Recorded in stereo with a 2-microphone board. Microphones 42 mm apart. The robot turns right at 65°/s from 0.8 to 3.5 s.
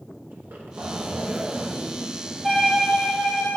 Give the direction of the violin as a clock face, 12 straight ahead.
12 o'clock.